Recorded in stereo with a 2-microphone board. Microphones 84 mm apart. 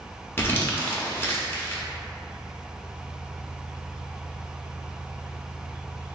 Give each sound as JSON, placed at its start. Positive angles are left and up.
{"t": 0.4, "sound": "crumpling", "side_deg": 25, "distance_m": 0.5}